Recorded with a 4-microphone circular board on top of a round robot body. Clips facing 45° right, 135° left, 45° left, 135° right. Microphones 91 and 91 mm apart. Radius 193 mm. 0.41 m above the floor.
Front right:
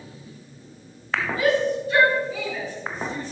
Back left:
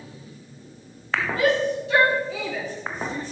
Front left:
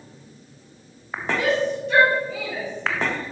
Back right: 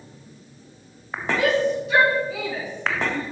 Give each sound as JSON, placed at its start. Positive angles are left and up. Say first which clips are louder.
{"t": 1.4, "sound": "a shout", "louder": "front right 1 dB, back right 2 dB", "azimuth_deg": 135, "distance_m": 5.5}